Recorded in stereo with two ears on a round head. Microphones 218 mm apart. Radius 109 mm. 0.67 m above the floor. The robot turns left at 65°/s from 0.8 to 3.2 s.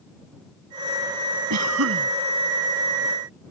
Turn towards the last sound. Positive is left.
turn(degrees=155)